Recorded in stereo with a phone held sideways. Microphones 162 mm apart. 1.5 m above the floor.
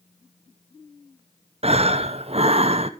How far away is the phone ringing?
I don't hear a phone ringing.